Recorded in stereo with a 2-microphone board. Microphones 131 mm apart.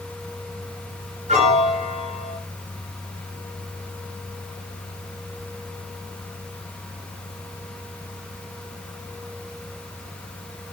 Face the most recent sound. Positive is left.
turn(degrees=-65)  # may be behind; listen again after turning